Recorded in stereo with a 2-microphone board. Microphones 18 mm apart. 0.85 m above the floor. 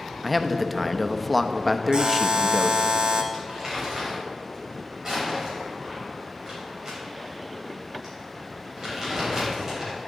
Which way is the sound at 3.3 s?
35° right (ahead or behind).